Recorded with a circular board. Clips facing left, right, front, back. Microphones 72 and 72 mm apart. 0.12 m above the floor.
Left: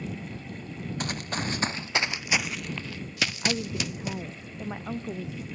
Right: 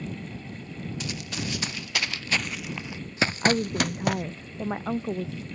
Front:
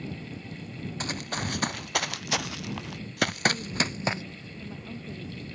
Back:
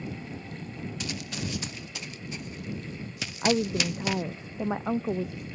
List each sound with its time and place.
1.0 s running footsteps: 45° left; by 4.2 s 65° right
3.4 s a woman speaking: 155° right